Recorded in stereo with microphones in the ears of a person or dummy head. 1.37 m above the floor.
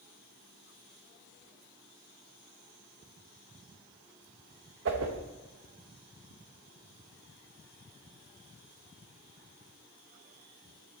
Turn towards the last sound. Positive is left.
turn(degrees=-65)  # may be behind; listen again after turning